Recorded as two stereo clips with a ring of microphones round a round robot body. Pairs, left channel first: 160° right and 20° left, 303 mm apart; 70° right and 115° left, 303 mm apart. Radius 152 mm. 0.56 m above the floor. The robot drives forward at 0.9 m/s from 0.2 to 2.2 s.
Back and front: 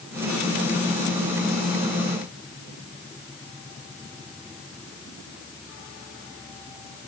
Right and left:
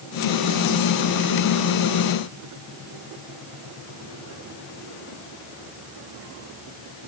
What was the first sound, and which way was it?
Only background noise.